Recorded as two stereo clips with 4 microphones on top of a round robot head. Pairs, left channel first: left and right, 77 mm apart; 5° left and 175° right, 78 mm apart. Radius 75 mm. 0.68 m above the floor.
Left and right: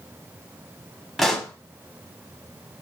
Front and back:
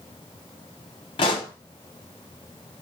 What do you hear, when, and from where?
1.2 s a pop: straight ahead, 0.7 m